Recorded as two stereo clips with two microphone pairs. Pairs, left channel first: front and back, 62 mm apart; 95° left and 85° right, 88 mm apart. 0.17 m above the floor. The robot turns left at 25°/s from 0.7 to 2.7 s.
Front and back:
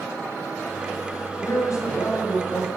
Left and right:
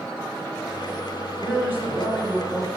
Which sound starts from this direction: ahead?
A man speaking, at 1.4 s.